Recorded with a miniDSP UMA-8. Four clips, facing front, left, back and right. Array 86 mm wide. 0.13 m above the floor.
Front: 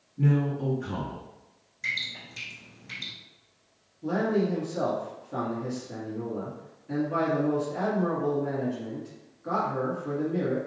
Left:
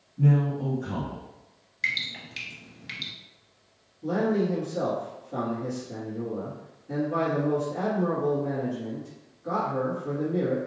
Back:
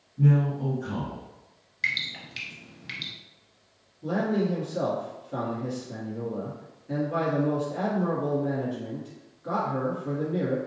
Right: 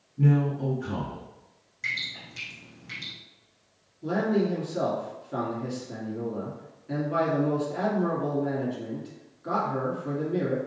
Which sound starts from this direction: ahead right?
A man speaking, at 0.2 s.